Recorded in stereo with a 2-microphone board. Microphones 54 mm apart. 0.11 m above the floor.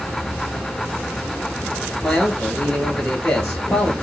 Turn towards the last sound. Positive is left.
turn(degrees=10)  # may be behind; listen again after turning